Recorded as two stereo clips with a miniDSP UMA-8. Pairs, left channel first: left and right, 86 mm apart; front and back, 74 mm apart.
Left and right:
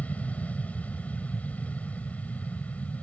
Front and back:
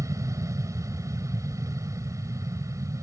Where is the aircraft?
160° left.